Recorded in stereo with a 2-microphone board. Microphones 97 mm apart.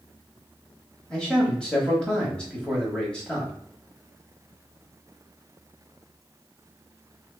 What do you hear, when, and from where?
1.1 s a man speaking: 10° left (ahead or behind), 1.0 m